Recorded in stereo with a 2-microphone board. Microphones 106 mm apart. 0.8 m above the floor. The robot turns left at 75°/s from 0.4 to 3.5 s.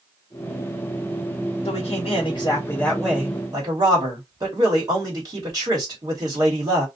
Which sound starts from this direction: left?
A man speaking, at 1.6 s.